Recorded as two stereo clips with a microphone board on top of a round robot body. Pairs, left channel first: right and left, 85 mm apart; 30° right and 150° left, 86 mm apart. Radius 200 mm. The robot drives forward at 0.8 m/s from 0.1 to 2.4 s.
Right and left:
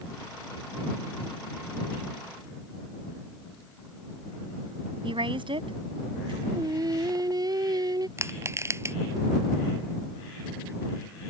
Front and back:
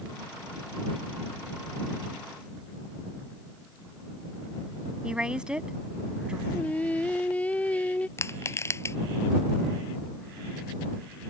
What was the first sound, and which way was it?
A woman speaking, 70° left.